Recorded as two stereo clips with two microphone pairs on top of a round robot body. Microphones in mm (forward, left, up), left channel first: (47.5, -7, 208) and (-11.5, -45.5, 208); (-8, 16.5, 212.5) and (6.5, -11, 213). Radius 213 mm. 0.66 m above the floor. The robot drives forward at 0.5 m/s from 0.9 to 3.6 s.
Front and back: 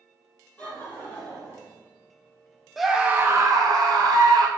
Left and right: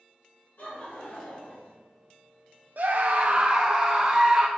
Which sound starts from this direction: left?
Laughter, at 0.6 s.